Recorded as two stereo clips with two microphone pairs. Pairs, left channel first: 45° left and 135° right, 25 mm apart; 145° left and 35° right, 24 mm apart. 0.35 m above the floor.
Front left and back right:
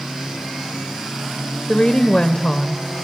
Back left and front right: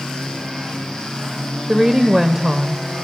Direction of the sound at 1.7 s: 20° left.